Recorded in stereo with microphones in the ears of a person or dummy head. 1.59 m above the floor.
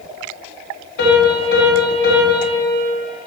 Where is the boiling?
No boiling in this recording.